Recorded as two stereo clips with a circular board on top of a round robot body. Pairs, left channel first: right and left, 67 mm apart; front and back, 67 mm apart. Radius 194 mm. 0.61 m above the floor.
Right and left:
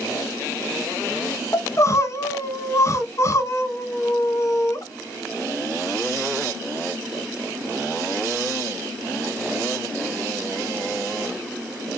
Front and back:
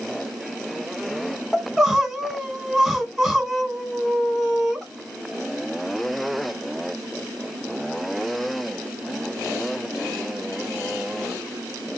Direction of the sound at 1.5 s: 90° right.